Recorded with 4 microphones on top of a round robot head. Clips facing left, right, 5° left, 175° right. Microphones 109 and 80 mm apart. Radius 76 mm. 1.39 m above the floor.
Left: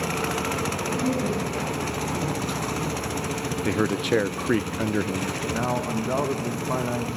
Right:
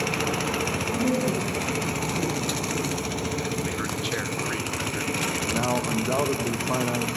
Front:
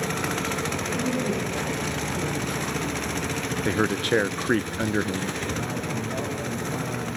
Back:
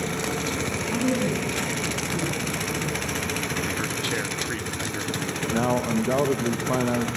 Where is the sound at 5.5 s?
175° right, 2 m.